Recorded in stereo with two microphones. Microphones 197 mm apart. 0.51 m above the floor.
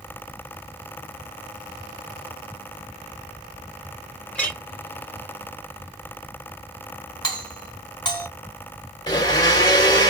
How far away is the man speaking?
No man speaking in this recording.